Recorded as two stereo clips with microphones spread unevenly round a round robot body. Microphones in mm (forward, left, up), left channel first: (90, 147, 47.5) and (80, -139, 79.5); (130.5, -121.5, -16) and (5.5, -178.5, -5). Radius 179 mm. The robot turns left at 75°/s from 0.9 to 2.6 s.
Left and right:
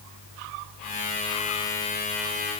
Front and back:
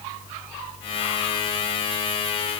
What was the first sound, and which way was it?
Only background noise.